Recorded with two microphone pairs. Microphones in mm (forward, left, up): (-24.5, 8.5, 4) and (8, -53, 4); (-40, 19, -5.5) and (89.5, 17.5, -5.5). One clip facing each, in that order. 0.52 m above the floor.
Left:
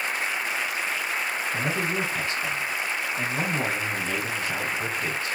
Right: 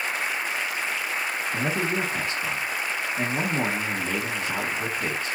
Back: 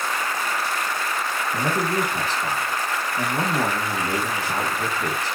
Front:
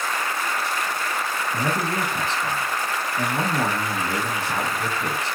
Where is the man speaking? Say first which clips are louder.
Right 2 dB, back 2 dB; 110° right, 1.2 m.